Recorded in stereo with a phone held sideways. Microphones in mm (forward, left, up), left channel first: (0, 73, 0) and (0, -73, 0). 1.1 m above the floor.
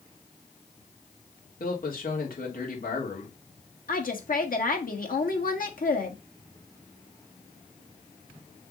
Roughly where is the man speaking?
Left.